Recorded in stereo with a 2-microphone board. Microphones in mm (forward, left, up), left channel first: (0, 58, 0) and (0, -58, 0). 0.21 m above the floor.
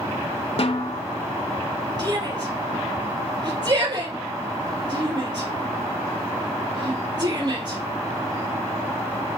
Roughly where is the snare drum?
Left.